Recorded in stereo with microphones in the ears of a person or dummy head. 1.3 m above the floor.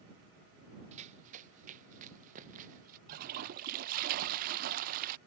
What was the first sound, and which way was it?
Running footsteps, 40° right (ahead or behind).